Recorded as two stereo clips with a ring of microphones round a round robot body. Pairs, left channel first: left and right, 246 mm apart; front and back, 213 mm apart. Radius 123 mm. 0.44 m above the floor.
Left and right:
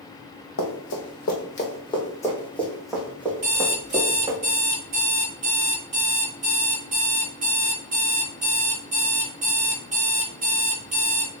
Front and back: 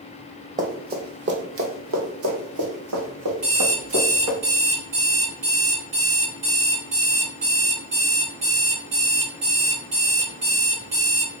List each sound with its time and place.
0.6 s running footsteps: 125° left, 1.2 m; by 4.4 s 165° right, 2 m
3.4 s an alarm clock: 150° right, 1.8 m